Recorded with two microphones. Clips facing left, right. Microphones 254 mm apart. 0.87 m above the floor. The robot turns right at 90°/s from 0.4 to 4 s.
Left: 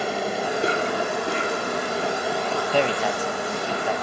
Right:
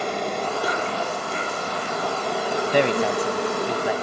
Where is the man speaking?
15° right (ahead or behind), 0.9 m; by 3.9 s 10° right (ahead or behind), 0.9 m.